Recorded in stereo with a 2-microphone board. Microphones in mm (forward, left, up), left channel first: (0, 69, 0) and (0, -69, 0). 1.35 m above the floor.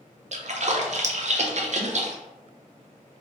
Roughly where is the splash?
Right.